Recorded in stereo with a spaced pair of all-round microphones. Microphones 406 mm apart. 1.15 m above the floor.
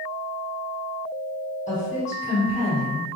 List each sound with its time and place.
1.7 s a woman speaking: 15° left (ahead or behind), 1.4 m